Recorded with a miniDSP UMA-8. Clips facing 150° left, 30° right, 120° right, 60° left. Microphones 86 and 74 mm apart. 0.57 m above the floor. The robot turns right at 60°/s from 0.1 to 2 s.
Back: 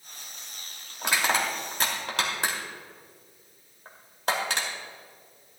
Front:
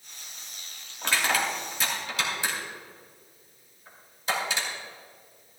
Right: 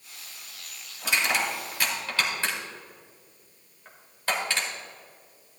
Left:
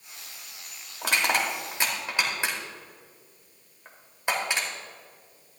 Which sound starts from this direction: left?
Crushing, at 1.0 s.